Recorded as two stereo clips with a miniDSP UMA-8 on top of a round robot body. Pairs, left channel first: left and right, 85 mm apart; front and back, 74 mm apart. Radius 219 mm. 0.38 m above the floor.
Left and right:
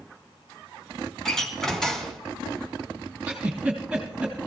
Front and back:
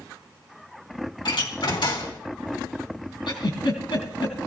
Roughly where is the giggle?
Ahead.